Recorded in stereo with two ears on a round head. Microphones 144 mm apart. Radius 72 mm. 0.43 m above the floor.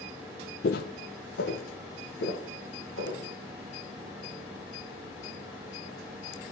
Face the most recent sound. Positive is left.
turn(degrees=85)